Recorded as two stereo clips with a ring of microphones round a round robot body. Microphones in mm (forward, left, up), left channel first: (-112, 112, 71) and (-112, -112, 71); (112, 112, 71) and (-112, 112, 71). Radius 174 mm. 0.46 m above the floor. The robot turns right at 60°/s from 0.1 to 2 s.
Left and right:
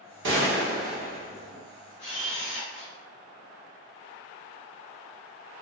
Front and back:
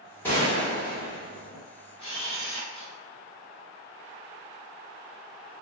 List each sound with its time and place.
0.2 s a gunshot: 80° right, 0.9 m; by 1.6 s 5° left, 0.9 m
2.0 s a camera shutter: 60° left, 1.7 m